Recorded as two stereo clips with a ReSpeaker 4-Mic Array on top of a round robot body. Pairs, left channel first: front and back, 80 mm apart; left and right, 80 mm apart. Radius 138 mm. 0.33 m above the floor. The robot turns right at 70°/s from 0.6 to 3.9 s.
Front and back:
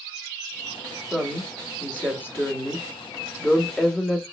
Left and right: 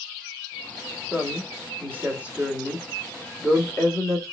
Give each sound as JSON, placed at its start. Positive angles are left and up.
{"t": 1.1, "sound": "a woman speaking", "azimuth_deg": -115, "distance_m": 1.6}